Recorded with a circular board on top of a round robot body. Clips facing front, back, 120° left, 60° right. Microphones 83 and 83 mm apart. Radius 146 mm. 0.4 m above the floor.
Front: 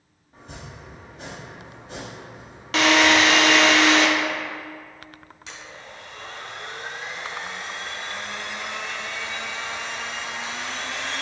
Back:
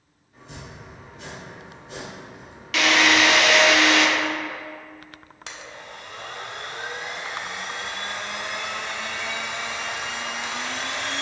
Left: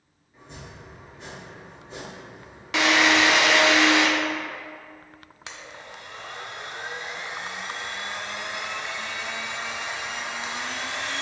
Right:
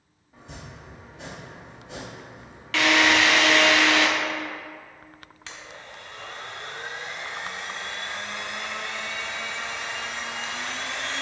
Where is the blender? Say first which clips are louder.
Back 2 dB, left 1 dB; 165° right, 0.8 m.